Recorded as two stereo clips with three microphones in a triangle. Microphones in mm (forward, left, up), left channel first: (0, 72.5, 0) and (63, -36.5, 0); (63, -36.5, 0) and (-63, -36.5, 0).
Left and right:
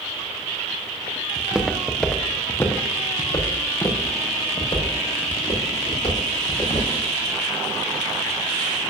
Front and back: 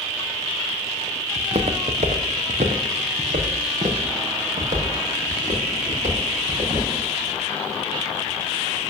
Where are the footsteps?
135° right, 0.9 m; by 6.9 s 160° left, 3.5 m.